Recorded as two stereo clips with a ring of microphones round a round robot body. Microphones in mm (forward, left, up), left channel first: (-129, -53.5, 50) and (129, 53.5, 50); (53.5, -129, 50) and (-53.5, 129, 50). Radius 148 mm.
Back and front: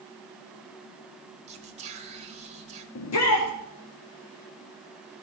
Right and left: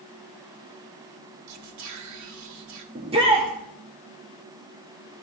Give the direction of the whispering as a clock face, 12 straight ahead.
9 o'clock.